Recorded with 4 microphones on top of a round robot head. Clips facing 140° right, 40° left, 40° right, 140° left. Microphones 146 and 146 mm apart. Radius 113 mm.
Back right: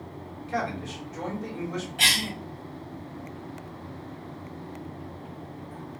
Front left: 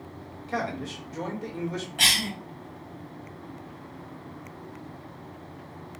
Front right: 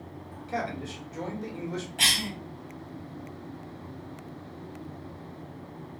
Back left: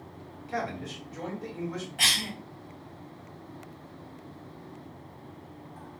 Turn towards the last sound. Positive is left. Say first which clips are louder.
# even, front right 2 dB
turn(degrees=15)